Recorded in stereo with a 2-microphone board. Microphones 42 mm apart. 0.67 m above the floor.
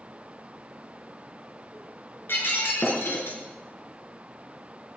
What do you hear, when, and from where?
2.3 s breaking glass: 70° left (ahead or behind), 4 m